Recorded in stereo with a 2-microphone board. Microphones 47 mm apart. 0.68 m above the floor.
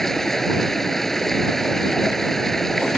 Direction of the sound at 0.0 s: 5° left (ahead or behind).